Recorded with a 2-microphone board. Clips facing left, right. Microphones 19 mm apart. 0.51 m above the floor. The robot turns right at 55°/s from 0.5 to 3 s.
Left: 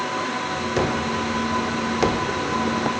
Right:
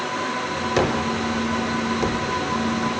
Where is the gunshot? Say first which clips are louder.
Right 2 dB; 25° right (ahead or behind), 0.7 m; by 2.9 s 60° left (ahead or behind), 0.7 m.